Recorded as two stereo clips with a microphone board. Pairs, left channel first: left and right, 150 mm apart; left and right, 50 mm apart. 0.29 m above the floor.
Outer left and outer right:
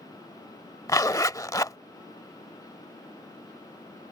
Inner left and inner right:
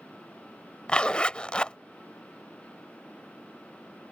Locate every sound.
0.9 s a zipper: 25° left (ahead or behind)